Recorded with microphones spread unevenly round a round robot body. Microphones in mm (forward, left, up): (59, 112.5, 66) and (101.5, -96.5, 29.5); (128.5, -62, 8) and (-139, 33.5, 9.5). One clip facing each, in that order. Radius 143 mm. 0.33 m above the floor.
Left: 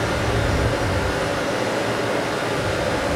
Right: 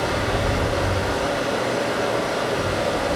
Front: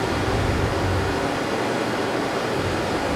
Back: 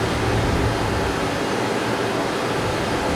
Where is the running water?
155° left, 1.2 m.